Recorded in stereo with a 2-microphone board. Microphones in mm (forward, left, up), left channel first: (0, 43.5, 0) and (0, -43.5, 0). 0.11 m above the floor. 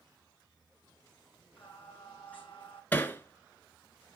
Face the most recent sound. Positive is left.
turn(degrees=20)  # may be behind; listen again after turning